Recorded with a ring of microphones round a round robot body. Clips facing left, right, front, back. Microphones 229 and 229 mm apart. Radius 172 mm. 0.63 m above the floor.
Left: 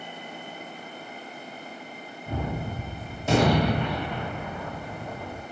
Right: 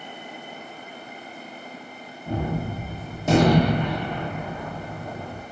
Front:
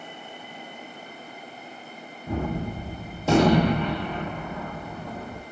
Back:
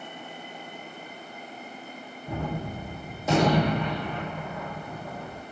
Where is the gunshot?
55° right, 1.0 m.